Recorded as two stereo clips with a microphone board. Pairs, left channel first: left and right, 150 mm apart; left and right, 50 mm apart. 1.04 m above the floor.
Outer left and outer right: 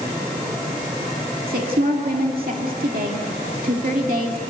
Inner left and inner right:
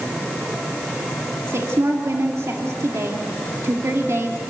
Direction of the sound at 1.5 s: 75° right (ahead or behind).